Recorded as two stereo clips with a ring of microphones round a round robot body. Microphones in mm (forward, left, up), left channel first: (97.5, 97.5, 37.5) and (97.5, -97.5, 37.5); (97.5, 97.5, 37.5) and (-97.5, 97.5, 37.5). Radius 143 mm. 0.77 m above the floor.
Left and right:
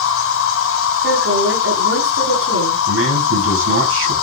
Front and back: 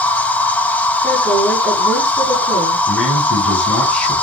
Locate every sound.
0.0 s an insect: 80° left, 2 m
1.0 s a woman speaking: 80° right, 6.5 m
2.9 s a man speaking: 90° right, 5 m